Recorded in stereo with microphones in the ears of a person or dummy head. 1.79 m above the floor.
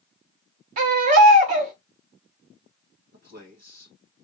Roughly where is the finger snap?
No finger snap in this recording.